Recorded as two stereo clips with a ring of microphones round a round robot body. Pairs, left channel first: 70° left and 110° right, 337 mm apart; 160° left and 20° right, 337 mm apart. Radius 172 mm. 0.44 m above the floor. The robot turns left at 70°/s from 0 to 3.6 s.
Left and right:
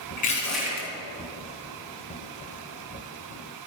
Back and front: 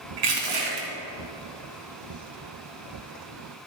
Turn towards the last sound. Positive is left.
turn(degrees=125)